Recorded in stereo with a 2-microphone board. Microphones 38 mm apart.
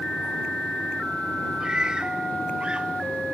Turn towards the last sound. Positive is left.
turn(degrees=-25)  # may be behind; listen again after turning